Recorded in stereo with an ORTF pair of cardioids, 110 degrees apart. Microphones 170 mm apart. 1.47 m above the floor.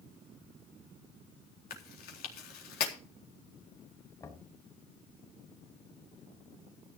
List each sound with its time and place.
1.7 s chewing: 65° left, 4 m
4.2 s knocking: 20° left, 4.5 m